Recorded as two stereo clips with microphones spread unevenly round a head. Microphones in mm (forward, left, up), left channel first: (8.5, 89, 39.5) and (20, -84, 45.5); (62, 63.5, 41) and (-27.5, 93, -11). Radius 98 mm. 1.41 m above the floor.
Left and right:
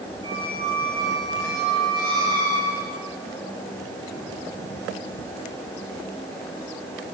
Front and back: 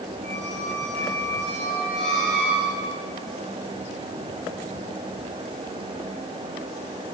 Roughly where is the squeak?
Behind right.